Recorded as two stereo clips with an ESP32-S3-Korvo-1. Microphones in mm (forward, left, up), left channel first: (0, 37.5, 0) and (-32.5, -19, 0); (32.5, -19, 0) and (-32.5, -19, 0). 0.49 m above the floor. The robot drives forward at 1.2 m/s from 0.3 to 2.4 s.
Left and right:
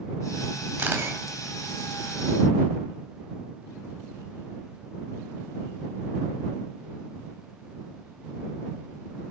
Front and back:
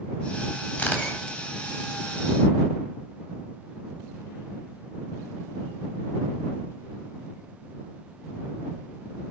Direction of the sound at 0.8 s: 65° right.